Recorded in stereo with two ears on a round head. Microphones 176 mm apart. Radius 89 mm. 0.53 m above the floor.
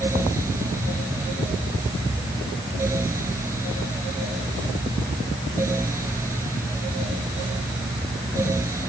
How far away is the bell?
No bell in this recording.